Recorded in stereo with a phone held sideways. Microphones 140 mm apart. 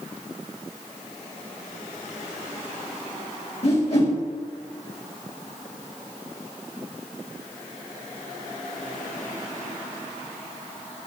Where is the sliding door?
No sliding door in this recording.